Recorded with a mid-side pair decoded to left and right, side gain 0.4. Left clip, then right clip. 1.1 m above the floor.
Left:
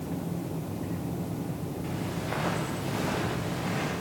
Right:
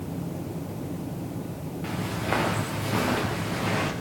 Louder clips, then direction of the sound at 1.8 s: Right 7 dB; 55° right.